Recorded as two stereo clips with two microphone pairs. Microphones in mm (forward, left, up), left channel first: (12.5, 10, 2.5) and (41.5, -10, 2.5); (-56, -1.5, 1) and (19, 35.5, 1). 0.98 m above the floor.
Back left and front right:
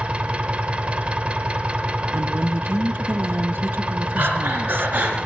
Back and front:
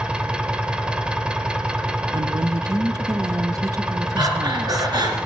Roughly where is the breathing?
Ahead.